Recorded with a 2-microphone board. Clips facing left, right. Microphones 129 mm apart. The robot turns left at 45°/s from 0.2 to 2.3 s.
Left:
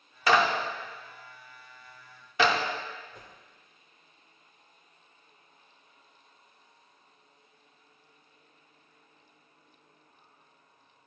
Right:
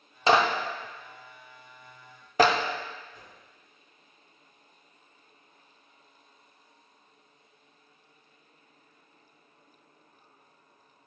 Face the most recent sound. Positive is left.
turn(degrees=60)  # may be behind; listen again after turning